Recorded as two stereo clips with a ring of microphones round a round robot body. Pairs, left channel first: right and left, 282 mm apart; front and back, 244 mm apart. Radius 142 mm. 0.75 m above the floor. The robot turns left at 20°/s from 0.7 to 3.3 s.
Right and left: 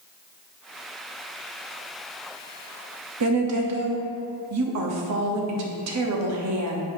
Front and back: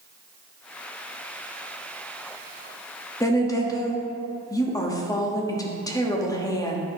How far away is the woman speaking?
About 1.1 m.